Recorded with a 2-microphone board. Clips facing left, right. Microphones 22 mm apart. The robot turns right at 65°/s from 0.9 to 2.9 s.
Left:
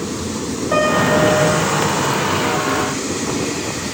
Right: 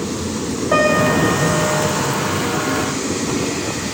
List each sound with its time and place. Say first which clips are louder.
0.7 s a piano: even; 10° right, 7.5 m; by 1.8 s 55° left, 7.5 m